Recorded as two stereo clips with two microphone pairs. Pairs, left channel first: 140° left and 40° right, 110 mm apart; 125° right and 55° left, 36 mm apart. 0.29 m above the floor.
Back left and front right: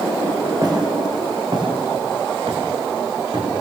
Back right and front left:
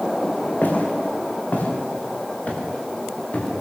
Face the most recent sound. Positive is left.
turn(degrees=-75)